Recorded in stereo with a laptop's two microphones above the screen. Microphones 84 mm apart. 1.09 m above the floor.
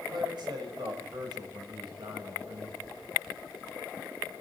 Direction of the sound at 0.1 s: 70° right (ahead or behind).